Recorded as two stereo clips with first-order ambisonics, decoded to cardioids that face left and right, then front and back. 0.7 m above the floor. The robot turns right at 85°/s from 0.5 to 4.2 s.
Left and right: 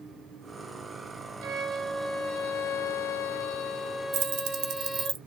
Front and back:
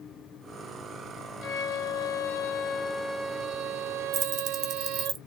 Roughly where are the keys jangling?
Behind right.